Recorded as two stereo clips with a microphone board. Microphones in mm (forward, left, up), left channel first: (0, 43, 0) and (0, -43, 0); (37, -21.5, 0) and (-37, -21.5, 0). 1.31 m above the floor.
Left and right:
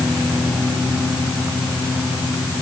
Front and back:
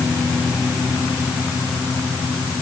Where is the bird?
No bird in this recording.